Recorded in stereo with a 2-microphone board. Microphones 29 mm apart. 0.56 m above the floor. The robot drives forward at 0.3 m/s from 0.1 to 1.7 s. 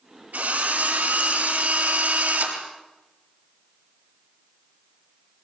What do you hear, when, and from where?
0.3 s a drill: 85° right, 7.5 m; by 2.6 s 80° right, 7.5 m